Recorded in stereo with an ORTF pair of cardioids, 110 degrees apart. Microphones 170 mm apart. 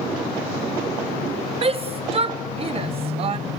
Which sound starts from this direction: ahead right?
A shout, at 1.6 s.